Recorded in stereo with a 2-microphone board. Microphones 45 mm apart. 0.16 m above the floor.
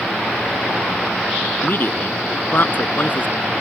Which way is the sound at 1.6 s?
45° left (ahead or behind).